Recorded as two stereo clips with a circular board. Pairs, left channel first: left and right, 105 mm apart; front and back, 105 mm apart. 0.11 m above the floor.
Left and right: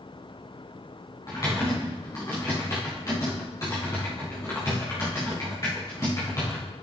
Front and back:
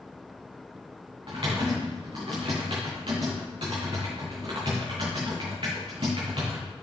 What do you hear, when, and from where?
1.3 s typing on a keyboard: 145° left, 4.5 m